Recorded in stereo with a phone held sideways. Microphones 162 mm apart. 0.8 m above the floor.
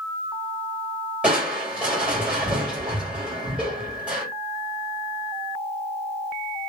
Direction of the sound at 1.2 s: 5° right (ahead or behind).